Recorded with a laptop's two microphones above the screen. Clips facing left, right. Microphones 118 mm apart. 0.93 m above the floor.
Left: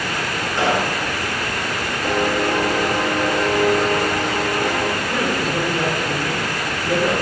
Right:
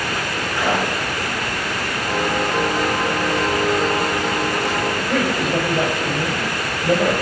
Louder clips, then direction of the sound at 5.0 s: Right 1 dB; 75° right (ahead or behind).